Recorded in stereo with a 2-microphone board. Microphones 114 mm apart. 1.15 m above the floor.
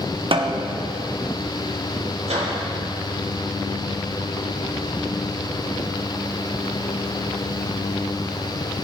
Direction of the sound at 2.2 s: 80° right.